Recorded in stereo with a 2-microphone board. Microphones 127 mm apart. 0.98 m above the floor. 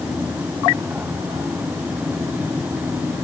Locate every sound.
Only background noise.